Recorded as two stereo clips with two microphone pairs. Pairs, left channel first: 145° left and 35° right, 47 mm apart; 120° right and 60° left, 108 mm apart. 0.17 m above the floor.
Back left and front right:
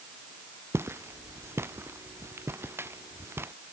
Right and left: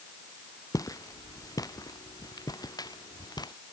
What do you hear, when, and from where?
0.7 s footsteps: 60° right; by 3.5 s 65° right